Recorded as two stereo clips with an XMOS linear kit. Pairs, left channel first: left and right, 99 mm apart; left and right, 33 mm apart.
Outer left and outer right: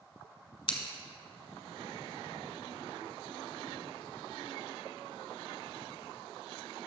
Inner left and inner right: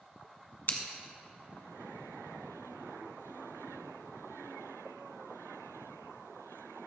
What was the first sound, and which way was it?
Scissors, 55° left (ahead or behind).